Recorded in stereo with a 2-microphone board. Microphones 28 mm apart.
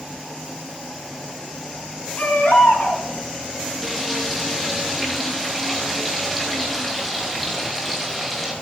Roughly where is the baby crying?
Left.